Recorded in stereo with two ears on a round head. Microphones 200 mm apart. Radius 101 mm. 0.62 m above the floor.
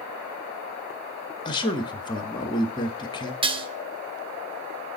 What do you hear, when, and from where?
1.4 s a man speaking: 20° left (ahead or behind), 0.8 m
3.4 s dishes clattering: 25° right (ahead or behind), 0.7 m